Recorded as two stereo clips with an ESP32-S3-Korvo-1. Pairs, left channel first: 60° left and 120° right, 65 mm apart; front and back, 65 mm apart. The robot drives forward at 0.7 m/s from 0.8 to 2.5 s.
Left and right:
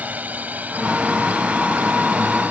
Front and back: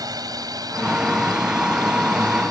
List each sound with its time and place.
0.0 s a drone: 175° left; by 2.5 s straight behind